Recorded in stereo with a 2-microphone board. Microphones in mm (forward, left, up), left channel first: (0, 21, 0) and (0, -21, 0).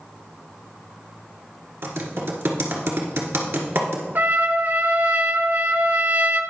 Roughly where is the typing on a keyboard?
Right.